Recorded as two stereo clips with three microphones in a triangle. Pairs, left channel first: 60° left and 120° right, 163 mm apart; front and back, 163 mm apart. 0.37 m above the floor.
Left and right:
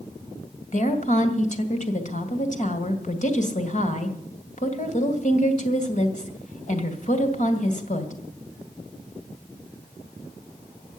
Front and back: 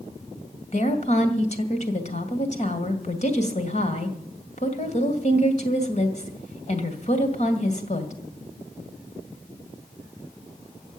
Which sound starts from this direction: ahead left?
A woman speaking, at 0.7 s.